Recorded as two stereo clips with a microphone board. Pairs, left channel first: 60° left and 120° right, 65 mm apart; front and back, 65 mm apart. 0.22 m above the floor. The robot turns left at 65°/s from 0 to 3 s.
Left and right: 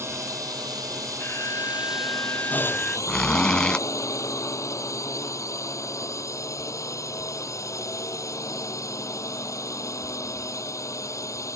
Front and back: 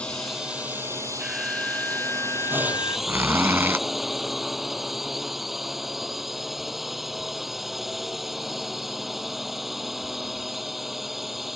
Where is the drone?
70° right; by 11.6 s 95° left.